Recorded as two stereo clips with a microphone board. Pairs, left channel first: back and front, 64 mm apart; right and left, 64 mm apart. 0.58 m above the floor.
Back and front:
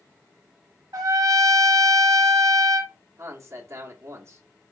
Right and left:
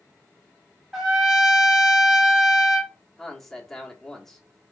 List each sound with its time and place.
0.9 s a trumpet: 10° left, 0.9 m
3.2 s a man speaking: 5° right, 1.0 m